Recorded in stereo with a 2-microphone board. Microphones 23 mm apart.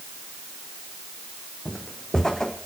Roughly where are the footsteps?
Left.